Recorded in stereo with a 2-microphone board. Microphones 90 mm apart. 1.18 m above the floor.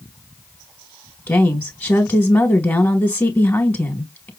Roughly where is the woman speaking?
Left.